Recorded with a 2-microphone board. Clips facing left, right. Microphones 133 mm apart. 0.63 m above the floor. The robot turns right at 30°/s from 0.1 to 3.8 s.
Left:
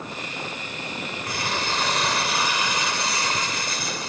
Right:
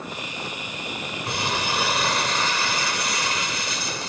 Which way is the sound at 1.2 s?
25° right.